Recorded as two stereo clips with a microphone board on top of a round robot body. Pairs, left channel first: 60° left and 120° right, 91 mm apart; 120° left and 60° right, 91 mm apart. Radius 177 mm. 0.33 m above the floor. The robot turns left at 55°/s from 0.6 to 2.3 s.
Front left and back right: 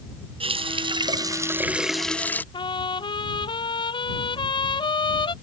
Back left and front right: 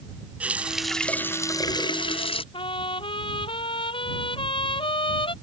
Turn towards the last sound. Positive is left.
turn(degrees=95)